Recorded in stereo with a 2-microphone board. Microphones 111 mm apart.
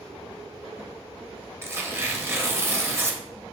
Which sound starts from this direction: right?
Tearing paper, at 1.6 s.